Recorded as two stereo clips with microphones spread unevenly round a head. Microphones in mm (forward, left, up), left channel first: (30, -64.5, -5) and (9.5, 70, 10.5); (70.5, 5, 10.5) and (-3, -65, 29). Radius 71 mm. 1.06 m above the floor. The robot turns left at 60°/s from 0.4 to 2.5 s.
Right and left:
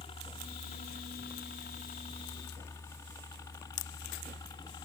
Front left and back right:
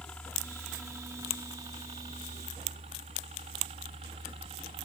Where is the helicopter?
35° right; by 4.8 s 135° right.